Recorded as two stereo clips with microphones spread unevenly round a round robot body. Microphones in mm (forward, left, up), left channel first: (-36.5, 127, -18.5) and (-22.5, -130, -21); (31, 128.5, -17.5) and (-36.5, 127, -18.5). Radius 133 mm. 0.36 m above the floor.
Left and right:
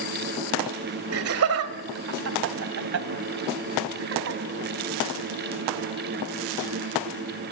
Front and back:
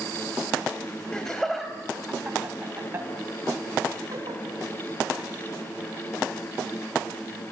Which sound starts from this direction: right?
Laughter, at 1.1 s.